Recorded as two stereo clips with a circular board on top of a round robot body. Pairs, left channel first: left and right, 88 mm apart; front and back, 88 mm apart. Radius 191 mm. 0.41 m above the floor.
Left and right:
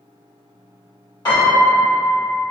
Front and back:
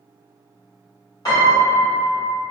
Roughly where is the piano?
Ahead left.